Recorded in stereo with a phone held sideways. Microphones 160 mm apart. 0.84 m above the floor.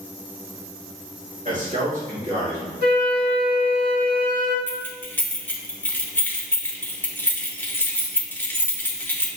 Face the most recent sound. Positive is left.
turn(degrees=15)  # may be behind; listen again after turning